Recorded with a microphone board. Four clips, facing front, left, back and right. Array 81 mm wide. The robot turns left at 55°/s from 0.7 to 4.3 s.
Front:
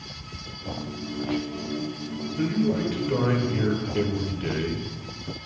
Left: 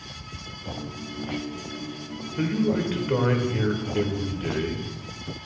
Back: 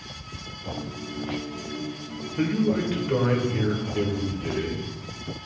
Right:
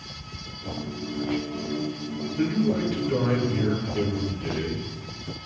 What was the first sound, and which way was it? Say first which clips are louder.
A man speaking: even, back 1 dB; 140° left.